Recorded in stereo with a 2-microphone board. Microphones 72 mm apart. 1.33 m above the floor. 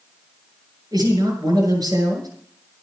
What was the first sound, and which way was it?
A man speaking, 70° right (ahead or behind).